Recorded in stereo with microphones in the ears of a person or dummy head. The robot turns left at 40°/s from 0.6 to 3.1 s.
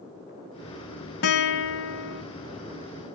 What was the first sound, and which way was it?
A guitar, 125° left.